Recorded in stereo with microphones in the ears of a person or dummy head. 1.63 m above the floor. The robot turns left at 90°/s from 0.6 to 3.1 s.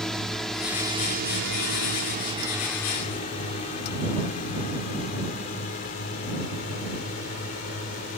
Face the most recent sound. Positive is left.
turn(degrees=55)  # may be behind; listen again after turning